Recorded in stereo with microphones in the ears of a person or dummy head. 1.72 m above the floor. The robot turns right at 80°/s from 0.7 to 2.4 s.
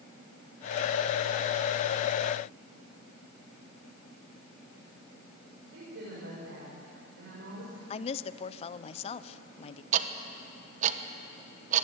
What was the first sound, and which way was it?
A woman speaking, 75° right (ahead or behind).